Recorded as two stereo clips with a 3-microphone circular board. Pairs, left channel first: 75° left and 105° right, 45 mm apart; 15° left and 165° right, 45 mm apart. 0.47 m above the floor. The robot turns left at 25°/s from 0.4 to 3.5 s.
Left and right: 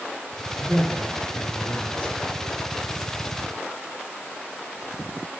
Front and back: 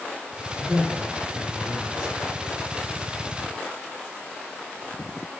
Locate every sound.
0.6 s a man speaking: 160° left, 4.5 m; by 2.1 s 120° left, 4.5 m